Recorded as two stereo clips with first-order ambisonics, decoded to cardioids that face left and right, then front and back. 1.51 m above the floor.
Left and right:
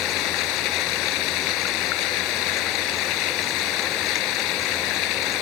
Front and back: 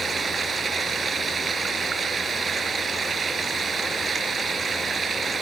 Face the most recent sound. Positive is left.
turn(degrees=110)